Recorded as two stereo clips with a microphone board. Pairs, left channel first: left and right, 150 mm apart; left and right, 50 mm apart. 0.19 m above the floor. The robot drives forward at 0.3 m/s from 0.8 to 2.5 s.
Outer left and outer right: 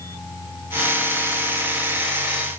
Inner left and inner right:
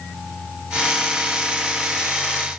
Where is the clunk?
I don't hear a clunk.